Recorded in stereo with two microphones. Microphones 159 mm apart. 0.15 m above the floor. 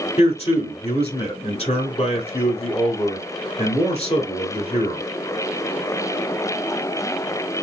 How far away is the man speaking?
About 2 m.